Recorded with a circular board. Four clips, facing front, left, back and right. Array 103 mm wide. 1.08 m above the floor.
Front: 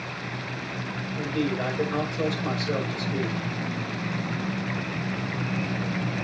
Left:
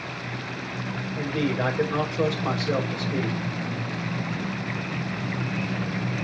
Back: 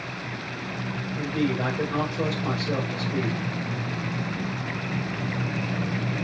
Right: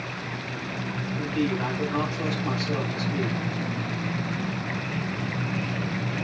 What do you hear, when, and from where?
1.1 s a man speaking: 100° left, 5.5 m